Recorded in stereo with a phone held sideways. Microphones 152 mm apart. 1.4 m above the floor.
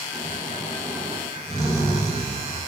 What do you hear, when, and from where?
0.1 s snoring: 20° right (ahead or behind), 4.5 m